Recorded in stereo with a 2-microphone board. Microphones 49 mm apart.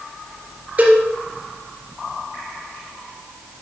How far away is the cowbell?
About 4 m.